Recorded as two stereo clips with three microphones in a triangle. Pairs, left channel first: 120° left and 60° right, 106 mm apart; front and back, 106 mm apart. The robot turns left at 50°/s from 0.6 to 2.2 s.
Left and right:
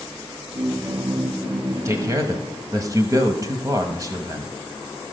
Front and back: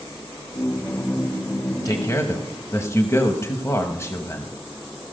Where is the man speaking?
20° right, 1.1 m; by 4.5 s 40° right, 1.1 m.